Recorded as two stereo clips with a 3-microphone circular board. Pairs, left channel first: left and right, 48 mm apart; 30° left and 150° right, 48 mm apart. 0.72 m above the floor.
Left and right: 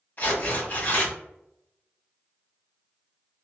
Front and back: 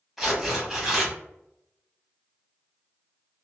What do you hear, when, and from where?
0.2 s tearing paper: 130° left, 1.3 m